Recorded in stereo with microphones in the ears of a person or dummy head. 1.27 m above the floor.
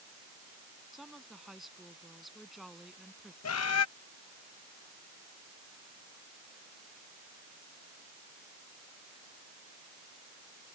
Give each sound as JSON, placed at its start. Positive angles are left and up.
{"t": 0.9, "sound": "a woman speaking", "side_deg": 0}
{"t": 3.4, "sound": "a bird", "side_deg": 75}